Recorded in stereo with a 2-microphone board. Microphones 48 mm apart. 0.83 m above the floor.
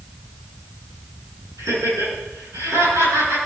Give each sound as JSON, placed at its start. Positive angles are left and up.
{"t": 1.6, "sound": "laughter", "side_deg": -85, "distance_m": 10.0}